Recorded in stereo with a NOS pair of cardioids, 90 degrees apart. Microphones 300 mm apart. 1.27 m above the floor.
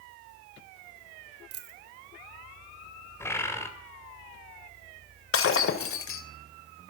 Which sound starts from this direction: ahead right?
A dropped coin, at 1.5 s.